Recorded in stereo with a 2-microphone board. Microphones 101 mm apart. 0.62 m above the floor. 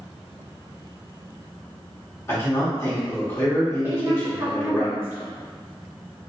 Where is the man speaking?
25° left (ahead or behind), 1.3 m.